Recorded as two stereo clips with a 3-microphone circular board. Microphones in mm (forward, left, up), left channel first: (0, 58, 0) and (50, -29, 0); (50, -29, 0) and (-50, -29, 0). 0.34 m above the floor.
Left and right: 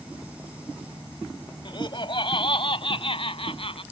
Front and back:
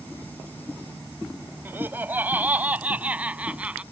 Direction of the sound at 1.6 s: 115° left.